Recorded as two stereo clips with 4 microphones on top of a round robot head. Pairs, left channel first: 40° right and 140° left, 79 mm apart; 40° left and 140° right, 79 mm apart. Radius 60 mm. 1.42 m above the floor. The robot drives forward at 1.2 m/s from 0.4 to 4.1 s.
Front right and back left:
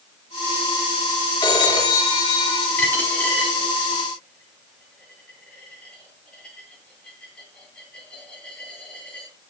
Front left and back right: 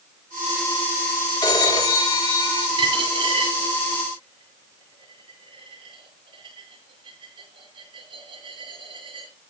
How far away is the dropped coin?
About 9.5 m.